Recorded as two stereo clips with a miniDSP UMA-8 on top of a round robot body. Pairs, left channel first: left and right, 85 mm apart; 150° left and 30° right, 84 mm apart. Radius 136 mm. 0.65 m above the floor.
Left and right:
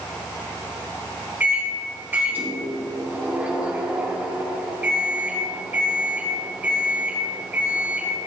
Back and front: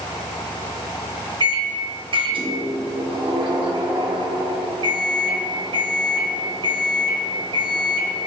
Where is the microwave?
20° right, 1.6 m.